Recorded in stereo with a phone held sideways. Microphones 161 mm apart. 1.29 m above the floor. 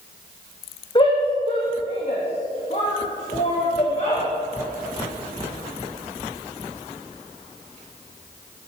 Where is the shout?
30° left (ahead or behind), 1.6 m; by 4.2 s 50° left (ahead or behind), 3.5 m.